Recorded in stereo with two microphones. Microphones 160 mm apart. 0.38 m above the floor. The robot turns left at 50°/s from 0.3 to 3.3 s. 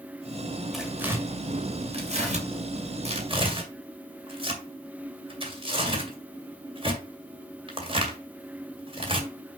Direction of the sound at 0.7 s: Centre (ahead or behind).